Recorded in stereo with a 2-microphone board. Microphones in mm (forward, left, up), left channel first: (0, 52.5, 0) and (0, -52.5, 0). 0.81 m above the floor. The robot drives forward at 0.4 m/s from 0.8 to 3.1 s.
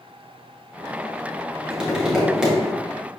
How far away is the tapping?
About 1.6 m.